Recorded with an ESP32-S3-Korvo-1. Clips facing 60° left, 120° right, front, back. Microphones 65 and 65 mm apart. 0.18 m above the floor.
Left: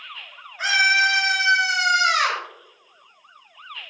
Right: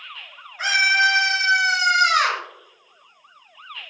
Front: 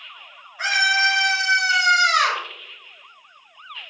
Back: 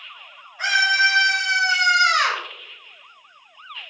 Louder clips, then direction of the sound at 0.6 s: Even, back 1 dB; 65° right.